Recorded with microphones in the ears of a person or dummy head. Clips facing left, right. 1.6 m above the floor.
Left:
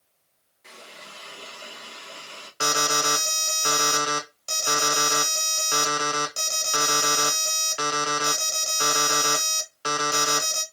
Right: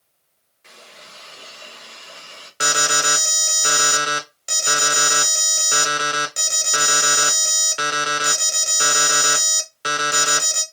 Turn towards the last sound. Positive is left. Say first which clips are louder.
# right 1 dB
turn(degrees=-20)  # may be behind; listen again after turning